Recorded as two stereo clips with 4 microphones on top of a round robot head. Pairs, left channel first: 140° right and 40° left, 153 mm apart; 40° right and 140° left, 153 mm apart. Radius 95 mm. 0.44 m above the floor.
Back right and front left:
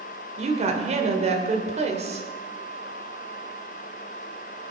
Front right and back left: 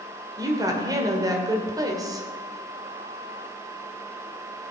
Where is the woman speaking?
75° left, 2 m.